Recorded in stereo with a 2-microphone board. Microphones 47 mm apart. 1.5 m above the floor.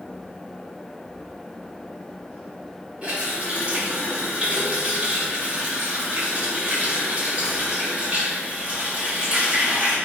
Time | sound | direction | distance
3.0 | a running tap | 25° right (ahead or behind) | 1.7 m